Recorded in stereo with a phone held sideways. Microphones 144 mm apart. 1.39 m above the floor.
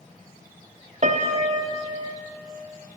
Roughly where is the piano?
Right.